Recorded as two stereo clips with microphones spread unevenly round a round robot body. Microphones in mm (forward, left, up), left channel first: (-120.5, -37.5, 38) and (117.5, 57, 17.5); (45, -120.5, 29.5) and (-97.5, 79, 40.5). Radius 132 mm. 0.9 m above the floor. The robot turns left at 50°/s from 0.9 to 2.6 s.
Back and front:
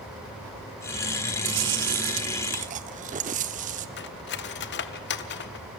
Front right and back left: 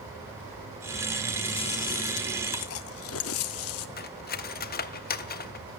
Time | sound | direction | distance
1.4 | chewing | 20° left | 0.6 m
4.0 | cutlery clinking | 110° right | 0.8 m